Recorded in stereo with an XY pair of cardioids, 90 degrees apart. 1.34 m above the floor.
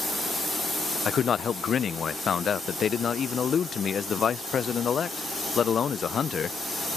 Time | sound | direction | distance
1.1 | a man speaking | 50° left | ?